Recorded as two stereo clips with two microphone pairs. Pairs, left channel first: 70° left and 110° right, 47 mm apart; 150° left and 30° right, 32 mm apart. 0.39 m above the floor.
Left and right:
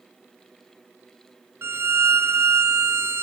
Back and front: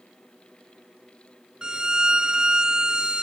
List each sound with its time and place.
1.6 s a violin: 95° right